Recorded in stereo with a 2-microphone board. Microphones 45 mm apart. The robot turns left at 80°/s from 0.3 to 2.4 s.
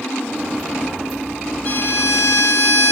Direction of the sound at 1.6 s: 140° left.